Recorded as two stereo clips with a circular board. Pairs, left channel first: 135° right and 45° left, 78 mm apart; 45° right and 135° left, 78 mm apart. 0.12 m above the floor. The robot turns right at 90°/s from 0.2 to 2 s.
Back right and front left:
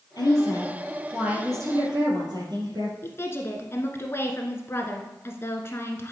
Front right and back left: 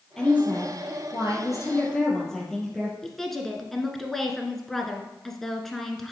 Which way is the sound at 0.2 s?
125° right.